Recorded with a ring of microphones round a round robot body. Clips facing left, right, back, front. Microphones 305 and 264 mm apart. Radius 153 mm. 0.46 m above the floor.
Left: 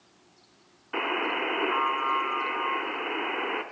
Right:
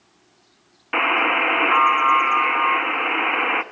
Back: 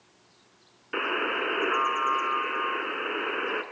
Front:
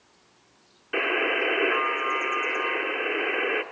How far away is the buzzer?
About 1.0 m.